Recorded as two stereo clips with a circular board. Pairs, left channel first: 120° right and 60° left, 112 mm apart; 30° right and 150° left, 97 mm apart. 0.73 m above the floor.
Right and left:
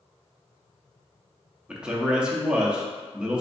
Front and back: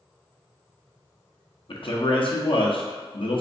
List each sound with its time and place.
1.7 s a man speaking: 20° right, 0.8 m